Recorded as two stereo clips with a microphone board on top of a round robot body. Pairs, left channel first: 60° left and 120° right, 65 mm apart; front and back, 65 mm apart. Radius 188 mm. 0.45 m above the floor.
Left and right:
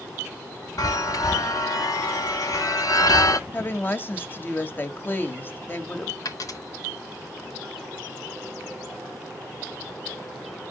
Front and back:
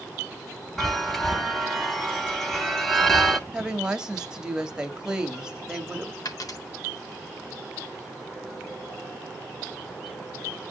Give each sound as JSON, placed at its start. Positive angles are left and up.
{"t": 0.8, "sound": "a chime", "azimuth_deg": 85, "distance_m": 1.5}
{"t": 3.5, "sound": "a woman speaking", "azimuth_deg": 105, "distance_m": 1.7}
{"t": 6.2, "sound": "a dropped coin", "azimuth_deg": 30, "distance_m": 1.5}